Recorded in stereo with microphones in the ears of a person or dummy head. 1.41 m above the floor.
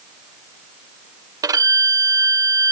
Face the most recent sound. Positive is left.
turn(degrees=-20)  # may be behind; listen again after turning